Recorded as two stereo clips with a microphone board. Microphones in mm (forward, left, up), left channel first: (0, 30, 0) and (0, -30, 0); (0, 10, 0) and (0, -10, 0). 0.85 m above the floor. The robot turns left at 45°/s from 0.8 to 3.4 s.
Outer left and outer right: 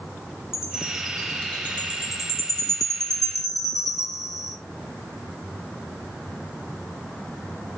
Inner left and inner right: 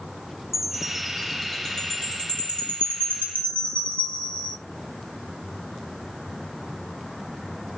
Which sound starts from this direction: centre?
A chime, at 0.5 s.